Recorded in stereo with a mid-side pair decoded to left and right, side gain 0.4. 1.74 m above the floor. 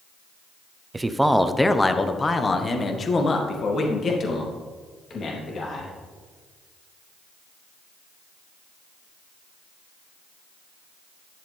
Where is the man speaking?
20° right, 0.8 m; by 6.0 s 60° left, 3.5 m.